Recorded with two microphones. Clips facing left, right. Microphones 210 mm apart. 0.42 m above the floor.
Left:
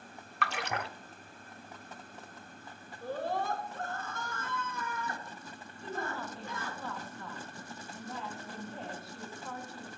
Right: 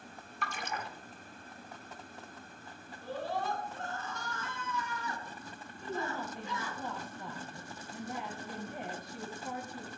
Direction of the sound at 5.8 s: 15° right (ahead or behind).